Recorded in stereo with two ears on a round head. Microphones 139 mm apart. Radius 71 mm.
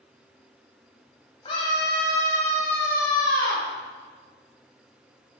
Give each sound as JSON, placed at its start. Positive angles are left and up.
{"t": 1.4, "sound": "a scream", "side_deg": 35, "distance_m": 2.0}